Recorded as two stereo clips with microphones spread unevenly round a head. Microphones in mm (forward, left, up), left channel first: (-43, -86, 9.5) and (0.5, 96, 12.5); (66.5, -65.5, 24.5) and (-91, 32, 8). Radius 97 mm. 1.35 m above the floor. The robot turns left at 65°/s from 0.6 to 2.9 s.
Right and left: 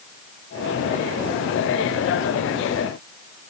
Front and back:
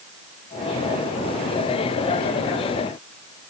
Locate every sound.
Only background noise.